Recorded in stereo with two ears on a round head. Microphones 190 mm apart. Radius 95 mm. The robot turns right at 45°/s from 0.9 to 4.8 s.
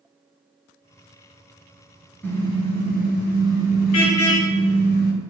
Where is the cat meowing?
I don't hear a cat meowing.